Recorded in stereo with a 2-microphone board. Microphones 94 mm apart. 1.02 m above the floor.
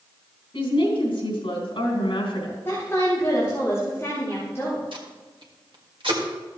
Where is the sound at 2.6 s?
30° left (ahead or behind), 3.5 m.